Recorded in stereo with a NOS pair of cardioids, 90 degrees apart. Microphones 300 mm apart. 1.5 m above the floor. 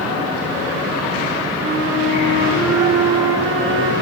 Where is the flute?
40° right, 7 m.